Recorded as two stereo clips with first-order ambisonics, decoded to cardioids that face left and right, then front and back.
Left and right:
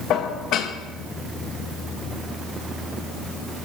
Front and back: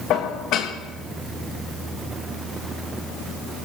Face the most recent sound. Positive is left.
turn(degrees=45)